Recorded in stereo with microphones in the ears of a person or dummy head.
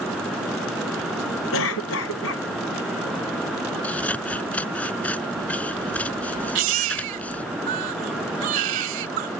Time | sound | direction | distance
1.5 | a cough | 75° left (ahead or behind) | ?
3.8 | scissors | 5° left (ahead or behind) | ?
6.5 | a baby crying | 50° right (ahead or behind) | ?